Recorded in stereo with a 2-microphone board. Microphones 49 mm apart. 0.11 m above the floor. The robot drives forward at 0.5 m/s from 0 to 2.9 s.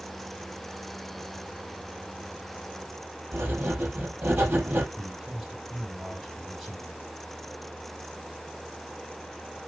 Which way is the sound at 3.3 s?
50° right (ahead or behind).